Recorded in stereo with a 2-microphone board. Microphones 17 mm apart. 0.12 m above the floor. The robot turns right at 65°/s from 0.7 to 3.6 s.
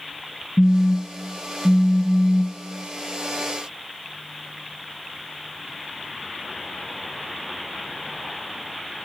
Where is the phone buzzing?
135° left, 0.8 m; by 2.6 s 100° right, 0.8 m.